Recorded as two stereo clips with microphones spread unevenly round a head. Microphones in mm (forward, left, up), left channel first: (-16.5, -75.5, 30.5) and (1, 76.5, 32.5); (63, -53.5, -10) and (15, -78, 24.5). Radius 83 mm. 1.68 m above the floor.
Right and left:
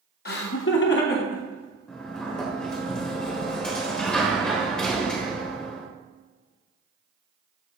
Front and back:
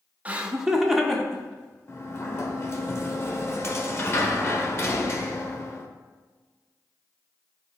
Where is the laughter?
120° right, 0.8 m; by 2.4 s 55° right, 3 m.